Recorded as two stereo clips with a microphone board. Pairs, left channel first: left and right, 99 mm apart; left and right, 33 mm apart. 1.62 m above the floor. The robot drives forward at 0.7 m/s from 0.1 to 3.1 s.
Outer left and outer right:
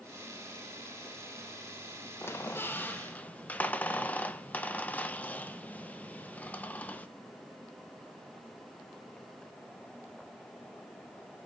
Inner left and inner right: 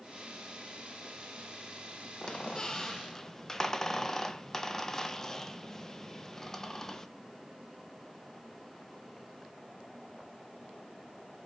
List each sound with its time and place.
2.2 s a squeak: 25° left (ahead or behind), 0.6 m; by 7.1 s 15° left (ahead or behind), 0.9 m